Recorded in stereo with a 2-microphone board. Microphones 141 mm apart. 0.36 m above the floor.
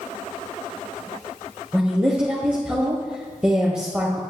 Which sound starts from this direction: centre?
A woman speaking, at 1.7 s.